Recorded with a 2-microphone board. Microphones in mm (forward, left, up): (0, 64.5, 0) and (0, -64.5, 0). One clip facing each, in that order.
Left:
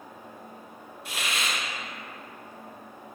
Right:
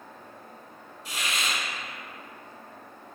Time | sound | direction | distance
1.1 | a hiss | 55° left (ahead or behind) | 0.9 m